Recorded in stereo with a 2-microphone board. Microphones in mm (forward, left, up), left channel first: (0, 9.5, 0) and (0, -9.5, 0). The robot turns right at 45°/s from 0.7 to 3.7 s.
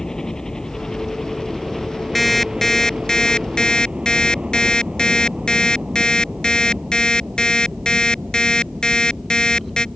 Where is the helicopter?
145° left; by 9.9 s 80° right.